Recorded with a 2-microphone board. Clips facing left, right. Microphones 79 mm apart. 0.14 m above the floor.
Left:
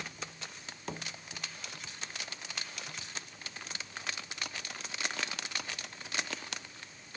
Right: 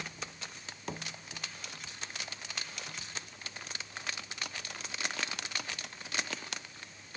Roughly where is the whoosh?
No whoosh in this recording.